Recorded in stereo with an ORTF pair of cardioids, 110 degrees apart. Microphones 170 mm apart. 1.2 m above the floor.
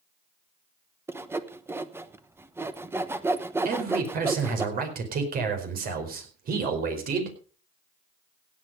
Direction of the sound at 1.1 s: 15° right.